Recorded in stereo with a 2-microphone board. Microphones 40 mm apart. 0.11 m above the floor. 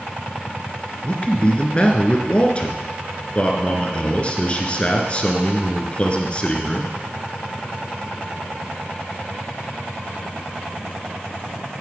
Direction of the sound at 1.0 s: 30° left (ahead or behind).